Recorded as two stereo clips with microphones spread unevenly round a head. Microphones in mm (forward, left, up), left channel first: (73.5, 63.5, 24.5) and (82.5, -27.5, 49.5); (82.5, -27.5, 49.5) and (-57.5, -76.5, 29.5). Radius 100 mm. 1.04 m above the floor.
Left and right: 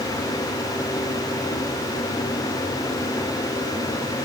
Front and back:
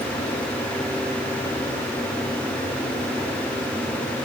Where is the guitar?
No guitar in this recording.